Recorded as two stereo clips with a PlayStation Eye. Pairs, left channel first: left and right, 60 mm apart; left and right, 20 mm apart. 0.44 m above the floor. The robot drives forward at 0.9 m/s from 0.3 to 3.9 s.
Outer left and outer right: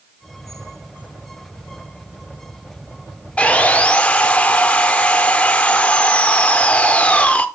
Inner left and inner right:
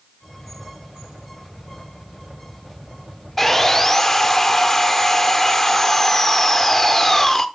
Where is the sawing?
20° left (ahead or behind), 0.6 m.